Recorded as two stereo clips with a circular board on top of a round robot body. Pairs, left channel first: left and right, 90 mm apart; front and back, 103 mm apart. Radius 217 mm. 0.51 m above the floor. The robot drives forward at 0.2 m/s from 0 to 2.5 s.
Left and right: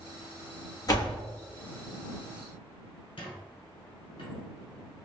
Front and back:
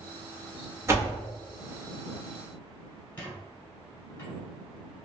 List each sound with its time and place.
0.9 s a door slam: 125° left, 1.1 m; by 1.2 s 130° left, 1.1 m
3.2 s a squeak: 70° left, 1.1 m